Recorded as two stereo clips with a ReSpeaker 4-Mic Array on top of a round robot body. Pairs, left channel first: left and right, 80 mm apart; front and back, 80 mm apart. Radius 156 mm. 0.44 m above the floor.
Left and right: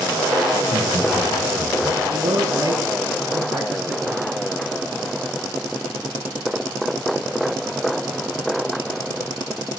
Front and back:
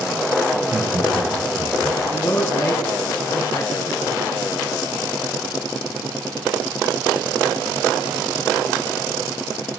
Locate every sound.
0.5 s laughter: 125° right, 9.5 m; by 2.0 s 120° right, 10 m
2.1 s a man speaking: 60° right, 6.5 m